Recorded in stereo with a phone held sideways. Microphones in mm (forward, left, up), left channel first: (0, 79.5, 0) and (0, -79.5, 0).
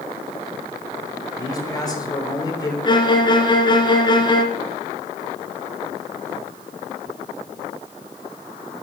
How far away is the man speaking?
About 4 m.